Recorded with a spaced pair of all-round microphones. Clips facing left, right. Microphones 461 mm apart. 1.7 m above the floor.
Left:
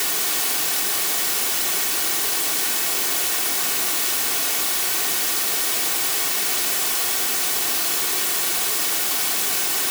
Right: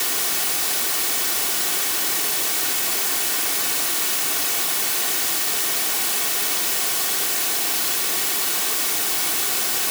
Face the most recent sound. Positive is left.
No sound to turn to.